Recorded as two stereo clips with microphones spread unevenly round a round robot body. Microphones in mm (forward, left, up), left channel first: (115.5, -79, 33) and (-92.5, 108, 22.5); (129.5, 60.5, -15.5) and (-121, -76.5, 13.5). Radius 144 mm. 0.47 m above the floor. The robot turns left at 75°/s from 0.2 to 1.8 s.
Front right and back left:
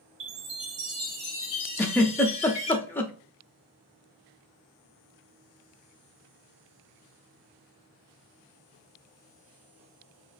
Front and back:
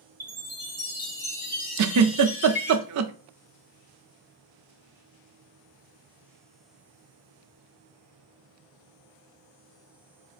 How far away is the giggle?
About 0.5 m.